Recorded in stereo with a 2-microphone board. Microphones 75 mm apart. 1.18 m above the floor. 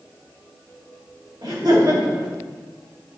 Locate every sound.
1.4 s laughter: 70° right (ahead or behind), 3 m